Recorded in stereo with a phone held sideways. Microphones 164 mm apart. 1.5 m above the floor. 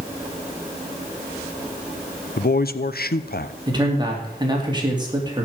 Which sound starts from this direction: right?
A man speaking, at 3.7 s.